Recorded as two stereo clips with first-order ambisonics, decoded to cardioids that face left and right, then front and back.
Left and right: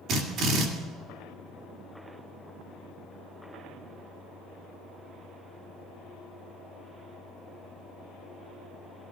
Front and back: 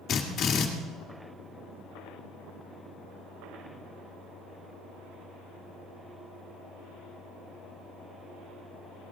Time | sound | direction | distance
0.1 | a drill | 50° right | 2 m